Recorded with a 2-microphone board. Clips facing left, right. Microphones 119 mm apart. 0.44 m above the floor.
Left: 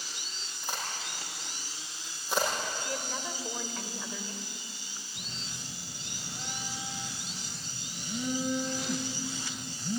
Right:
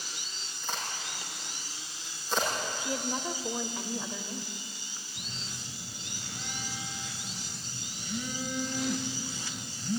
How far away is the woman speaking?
About 1.2 m.